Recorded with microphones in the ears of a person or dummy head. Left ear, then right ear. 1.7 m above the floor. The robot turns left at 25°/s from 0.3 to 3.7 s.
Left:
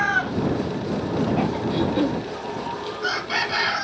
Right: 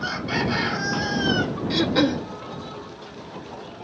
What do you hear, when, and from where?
1.7 s throat clearing: 60° right (ahead or behind); by 2.3 s 65° right (ahead or behind)